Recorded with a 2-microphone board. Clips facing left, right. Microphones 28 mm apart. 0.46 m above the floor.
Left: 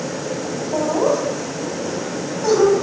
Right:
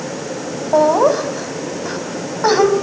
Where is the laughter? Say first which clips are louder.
Right 6 dB; 50° right (ahead or behind), 3.5 m.